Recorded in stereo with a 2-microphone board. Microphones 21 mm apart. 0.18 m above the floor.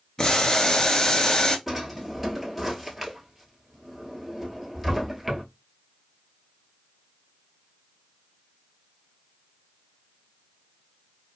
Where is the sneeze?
No sneeze in this recording.